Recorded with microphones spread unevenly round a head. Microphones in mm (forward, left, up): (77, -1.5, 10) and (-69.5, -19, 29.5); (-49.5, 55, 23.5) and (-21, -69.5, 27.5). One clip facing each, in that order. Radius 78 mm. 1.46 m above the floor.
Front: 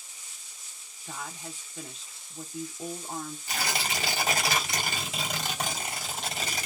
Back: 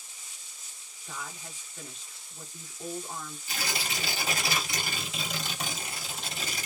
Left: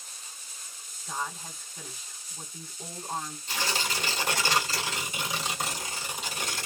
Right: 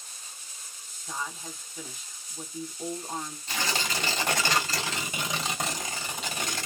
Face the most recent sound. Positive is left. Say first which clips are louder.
# front 3 dB, right 1 dB
turn(degrees=-25)